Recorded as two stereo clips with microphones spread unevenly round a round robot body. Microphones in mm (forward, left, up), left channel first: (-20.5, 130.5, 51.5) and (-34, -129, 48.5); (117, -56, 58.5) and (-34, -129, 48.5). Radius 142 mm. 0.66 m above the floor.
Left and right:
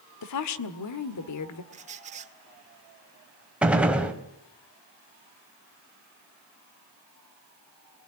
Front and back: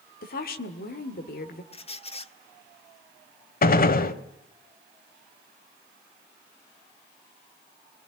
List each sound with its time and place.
0.2 s a woman speaking: 70° left, 1.8 m
1.7 s a squeak: 30° right, 1.5 m
3.6 s a gunshot: 5° right, 1.5 m